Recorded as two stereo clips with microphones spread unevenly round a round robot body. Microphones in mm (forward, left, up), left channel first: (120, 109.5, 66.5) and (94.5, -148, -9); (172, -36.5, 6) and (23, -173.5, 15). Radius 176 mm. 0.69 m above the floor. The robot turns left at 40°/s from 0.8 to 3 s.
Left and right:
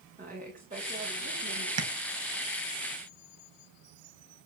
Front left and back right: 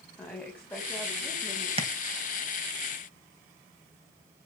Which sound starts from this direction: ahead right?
A woman speaking, at 0.2 s.